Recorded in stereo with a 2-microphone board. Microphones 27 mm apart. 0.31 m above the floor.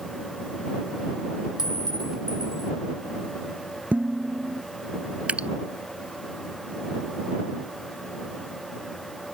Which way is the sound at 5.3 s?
55° right (ahead or behind).